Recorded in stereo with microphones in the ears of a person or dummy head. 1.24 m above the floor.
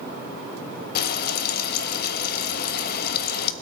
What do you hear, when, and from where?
0.9 s frying: 60° left (ahead or behind), 0.6 m